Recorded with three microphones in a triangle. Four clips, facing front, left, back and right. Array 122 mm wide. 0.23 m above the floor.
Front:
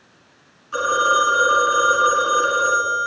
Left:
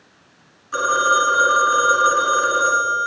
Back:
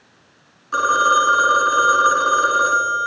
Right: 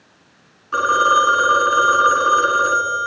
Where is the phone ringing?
130° right, 2 m.